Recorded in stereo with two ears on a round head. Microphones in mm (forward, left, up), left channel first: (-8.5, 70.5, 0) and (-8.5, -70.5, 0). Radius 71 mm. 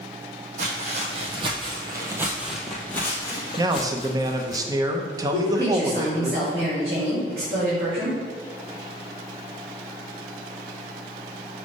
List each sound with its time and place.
0.6 s footsteps: 50° right (ahead or behind), 2 m; by 4.6 s 50° left (ahead or behind), 1.8 m
3.6 s a man speaking: 25° right (ahead or behind), 0.8 m
5.3 s a woman speaking: 35° right (ahead or behind), 3 m